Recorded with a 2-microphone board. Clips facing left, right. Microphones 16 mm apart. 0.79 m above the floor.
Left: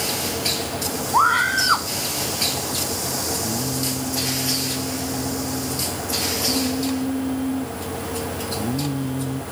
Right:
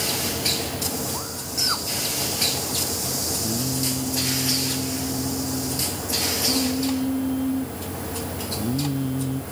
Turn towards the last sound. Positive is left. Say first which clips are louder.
# left 1 dB
turn(degrees=5)  # may be behind; listen again after turning